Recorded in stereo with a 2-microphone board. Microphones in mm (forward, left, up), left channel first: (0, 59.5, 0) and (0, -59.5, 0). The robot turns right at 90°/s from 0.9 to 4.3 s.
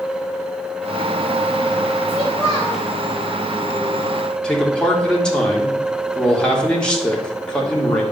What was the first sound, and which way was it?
A child speaking, 10° right.